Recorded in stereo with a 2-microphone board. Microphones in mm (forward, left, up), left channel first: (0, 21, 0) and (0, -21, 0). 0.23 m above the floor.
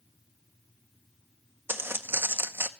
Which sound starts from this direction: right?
Footsteps, at 1.7 s.